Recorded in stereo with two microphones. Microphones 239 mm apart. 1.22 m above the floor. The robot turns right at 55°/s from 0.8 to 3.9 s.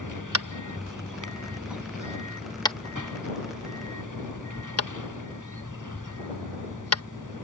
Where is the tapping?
85° right; by 7.0 s 85° left.